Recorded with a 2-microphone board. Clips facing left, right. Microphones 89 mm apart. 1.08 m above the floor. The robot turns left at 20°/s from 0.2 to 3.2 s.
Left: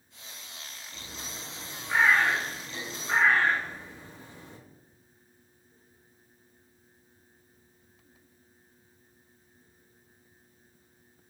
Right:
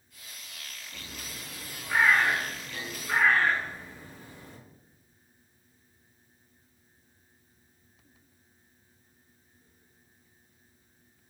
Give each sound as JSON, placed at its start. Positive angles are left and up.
{"t": 0.9, "sound": "a bird", "side_deg": 10, "distance_m": 0.6}